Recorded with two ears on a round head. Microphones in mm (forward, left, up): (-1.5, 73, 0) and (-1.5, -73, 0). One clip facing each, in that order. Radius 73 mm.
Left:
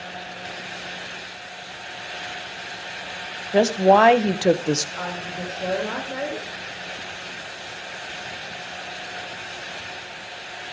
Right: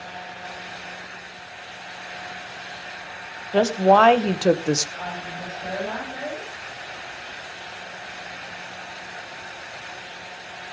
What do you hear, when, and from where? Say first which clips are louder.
3.5 s a woman speaking: left 1 dB; 15° left (ahead or behind), 1.5 m; by 4.9 s 5° right (ahead or behind), 0.7 m
5.0 s a woman speaking: left 2 dB; 80° left, 6 m